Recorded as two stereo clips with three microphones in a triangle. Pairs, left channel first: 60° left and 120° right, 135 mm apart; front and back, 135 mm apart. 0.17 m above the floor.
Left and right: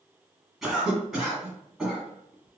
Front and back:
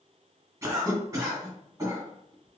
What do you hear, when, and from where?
0.6 s a cough: 155° left, 1.8 m